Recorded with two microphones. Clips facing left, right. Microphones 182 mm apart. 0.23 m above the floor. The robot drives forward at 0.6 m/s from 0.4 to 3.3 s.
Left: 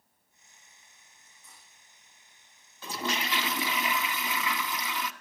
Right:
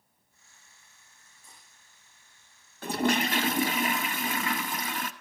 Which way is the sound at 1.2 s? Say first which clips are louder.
Right 1 dB; 30° right (ahead or behind).